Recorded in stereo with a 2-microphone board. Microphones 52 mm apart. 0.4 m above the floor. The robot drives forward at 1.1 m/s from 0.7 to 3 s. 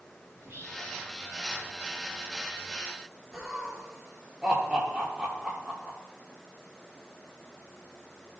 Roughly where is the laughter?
Centre.